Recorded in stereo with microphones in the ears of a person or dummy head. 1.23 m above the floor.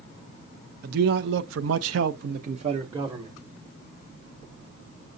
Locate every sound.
0.8 s a man speaking: 60° right (ahead or behind), 0.9 m; by 3.4 s 15° right (ahead or behind), 1.0 m